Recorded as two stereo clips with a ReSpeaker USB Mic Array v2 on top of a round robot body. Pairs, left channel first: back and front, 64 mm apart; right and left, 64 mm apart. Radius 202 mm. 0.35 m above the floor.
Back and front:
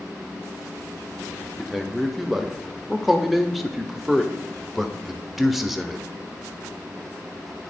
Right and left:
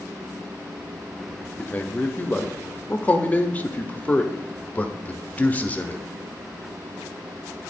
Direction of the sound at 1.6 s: 85° right.